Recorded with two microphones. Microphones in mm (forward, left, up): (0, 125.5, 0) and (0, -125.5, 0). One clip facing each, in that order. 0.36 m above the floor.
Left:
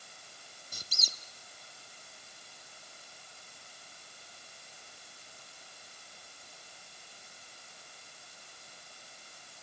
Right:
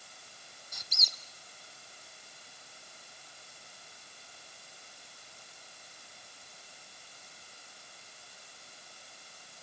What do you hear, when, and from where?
0.7 s a squeak: 35° left (ahead or behind), 0.9 m